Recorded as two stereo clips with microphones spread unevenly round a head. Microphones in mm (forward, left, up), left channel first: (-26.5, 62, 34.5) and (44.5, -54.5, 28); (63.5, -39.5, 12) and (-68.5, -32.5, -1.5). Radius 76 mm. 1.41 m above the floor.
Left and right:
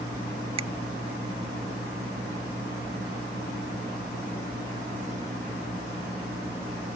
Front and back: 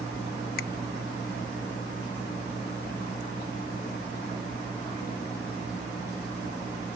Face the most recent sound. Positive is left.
turn(degrees=-10)